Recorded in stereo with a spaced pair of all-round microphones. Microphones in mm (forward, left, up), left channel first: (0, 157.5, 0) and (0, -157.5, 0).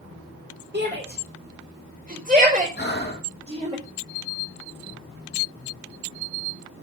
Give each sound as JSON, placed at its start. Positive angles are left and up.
{"t": 0.7, "sound": "a shout", "side_deg": -35, "distance_m": 4.0}
{"t": 2.8, "sound": "breathing", "side_deg": 35, "distance_m": 2.0}